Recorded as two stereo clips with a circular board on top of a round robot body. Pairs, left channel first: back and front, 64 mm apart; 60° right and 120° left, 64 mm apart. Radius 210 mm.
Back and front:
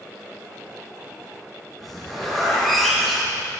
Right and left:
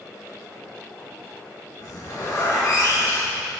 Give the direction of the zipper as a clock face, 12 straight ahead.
3 o'clock.